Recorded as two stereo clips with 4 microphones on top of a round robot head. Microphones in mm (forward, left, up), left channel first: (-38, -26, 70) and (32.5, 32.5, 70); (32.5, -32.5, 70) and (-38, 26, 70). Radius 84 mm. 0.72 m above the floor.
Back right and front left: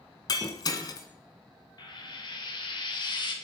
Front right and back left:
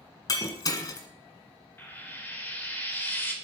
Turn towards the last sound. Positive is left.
turn(degrees=-105)